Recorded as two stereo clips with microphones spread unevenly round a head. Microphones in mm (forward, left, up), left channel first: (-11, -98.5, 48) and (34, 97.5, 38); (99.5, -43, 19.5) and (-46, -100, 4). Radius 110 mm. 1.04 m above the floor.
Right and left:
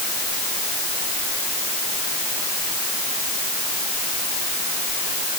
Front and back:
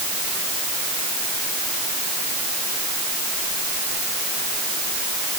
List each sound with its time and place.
Only background noise.